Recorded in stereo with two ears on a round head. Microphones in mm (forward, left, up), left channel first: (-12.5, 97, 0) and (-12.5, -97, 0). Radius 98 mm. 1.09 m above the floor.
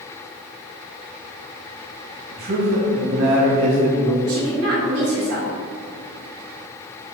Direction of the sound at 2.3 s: 45° right (ahead or behind).